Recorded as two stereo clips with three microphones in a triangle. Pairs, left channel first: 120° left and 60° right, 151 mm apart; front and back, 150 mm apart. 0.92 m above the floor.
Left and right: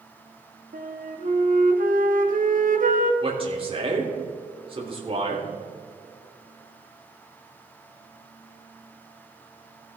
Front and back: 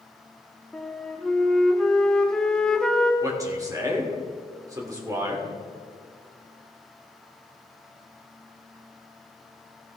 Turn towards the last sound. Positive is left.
turn(degrees=-115)